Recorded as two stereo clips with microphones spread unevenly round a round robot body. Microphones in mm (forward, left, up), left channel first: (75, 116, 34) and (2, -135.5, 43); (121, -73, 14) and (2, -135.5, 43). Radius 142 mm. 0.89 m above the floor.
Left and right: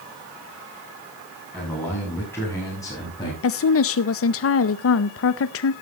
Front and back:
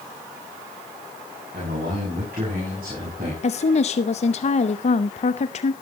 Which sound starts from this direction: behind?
A man speaking, at 1.5 s.